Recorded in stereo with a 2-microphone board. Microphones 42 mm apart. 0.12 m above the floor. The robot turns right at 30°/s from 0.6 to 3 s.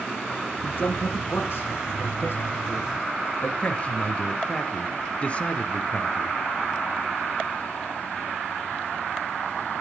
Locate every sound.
0.6 s a man speaking: 50° left (ahead or behind), 7.5 m; by 3.5 s 55° left (ahead or behind), 7.5 m
3.6 s a man speaking: 35° left (ahead or behind), 2.5 m